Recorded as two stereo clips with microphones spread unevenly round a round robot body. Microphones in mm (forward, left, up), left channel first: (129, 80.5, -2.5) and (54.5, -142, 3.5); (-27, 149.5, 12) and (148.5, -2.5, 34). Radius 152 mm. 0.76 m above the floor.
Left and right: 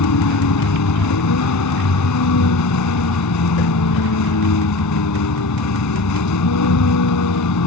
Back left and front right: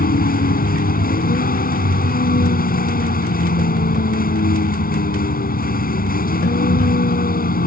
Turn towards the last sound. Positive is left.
turn(degrees=85)